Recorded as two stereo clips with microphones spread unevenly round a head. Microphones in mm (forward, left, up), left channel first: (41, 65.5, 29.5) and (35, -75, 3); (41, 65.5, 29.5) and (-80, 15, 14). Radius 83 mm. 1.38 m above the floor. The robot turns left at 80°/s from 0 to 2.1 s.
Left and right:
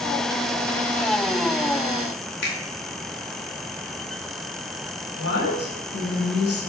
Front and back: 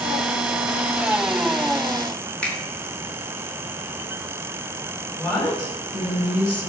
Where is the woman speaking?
100° left, 7.5 m.